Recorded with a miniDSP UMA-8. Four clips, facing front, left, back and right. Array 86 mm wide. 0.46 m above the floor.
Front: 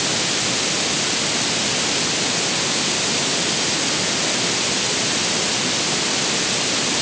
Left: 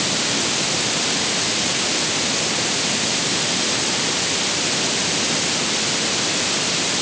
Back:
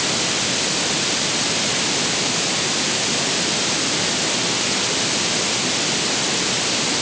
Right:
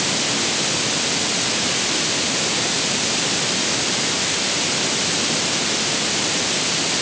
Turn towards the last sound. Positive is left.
No sound to turn to.